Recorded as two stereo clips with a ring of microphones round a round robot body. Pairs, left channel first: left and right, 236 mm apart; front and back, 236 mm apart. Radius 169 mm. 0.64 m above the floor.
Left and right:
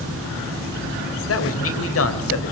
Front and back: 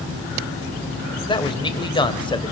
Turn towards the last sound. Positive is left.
turn(degrees=70)